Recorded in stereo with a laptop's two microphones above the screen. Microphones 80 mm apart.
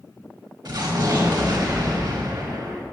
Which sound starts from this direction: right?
An explosion, at 0.7 s.